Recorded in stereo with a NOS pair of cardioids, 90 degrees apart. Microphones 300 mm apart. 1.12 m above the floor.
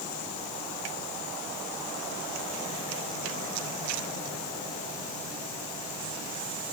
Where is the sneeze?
No sneeze in this recording.